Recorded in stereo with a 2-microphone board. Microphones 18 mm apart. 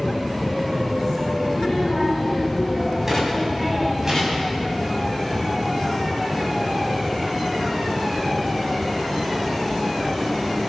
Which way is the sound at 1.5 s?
10° right (ahead or behind).